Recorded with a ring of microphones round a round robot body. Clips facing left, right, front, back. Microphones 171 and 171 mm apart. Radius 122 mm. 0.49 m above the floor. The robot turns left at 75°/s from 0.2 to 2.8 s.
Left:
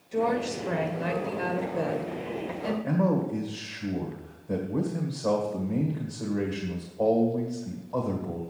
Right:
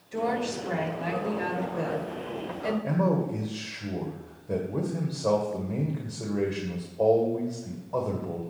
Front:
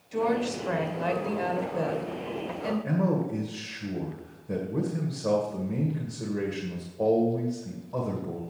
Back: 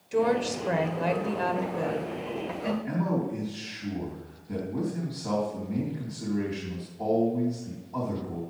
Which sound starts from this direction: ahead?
A man speaking, at 2.8 s.